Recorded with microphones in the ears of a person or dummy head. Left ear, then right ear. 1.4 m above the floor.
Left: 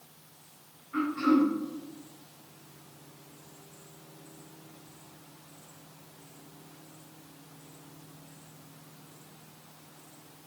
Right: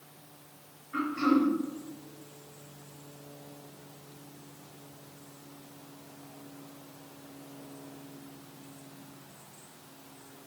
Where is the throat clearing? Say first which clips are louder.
Left 1 dB; 10° right (ahead or behind), 4 m.